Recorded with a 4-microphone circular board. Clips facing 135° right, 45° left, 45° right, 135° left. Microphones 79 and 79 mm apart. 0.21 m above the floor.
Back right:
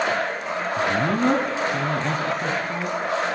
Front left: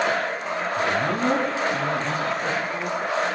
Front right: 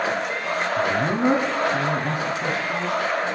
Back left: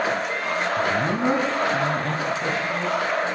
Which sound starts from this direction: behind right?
A man speaking, at 0.8 s.